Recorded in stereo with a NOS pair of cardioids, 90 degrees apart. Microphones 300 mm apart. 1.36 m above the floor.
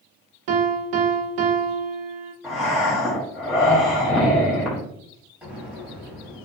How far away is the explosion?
About 1.2 m.